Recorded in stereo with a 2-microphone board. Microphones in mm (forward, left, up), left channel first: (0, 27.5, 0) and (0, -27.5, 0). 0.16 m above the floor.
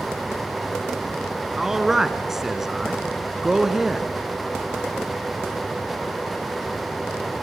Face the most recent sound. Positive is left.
turn(degrees=-10)  # may be behind; listen again after turning